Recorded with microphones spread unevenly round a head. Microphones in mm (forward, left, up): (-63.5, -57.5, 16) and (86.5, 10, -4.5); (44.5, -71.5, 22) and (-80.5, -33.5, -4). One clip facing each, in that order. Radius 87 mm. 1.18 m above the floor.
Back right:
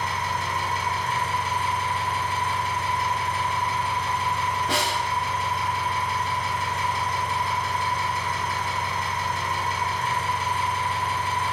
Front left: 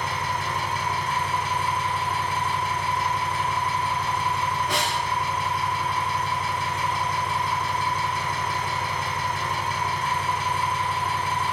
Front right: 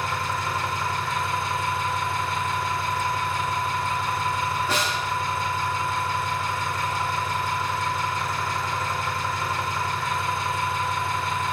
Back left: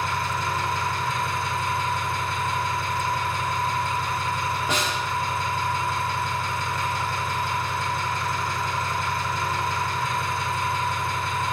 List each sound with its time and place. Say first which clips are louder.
0.0 s an engine running: even, back left 1 dB; 170° right, 2.0 m
4.7 s a snare drum: back right 1 dB, even; 125° right, 1.1 m